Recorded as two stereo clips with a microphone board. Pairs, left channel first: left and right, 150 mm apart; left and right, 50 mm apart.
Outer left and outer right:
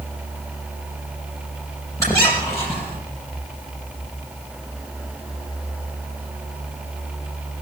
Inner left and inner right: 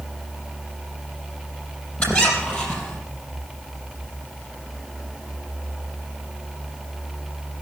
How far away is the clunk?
I don't hear a clunk.